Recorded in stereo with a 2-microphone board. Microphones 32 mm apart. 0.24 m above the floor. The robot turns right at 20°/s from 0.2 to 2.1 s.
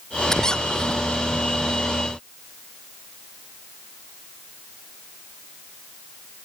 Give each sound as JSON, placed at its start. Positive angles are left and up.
{"t": 0.3, "sound": "a squeak", "side_deg": 15}